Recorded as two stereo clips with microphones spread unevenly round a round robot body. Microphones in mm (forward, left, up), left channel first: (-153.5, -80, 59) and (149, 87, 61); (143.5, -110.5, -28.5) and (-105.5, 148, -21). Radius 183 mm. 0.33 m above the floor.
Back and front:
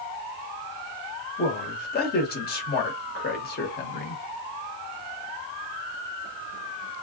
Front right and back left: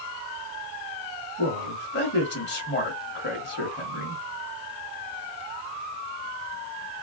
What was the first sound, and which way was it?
A man speaking, 100° right.